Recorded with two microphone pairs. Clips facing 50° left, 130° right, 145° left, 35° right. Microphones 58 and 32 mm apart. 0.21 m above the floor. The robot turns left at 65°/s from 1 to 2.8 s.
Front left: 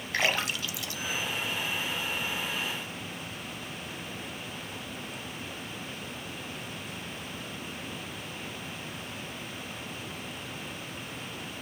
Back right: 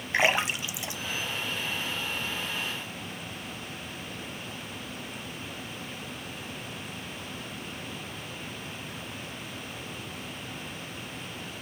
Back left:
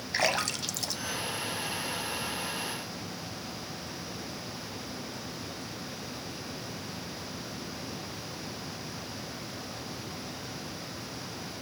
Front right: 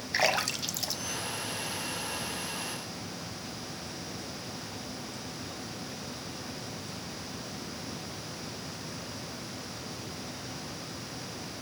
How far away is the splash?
About 1.0 m.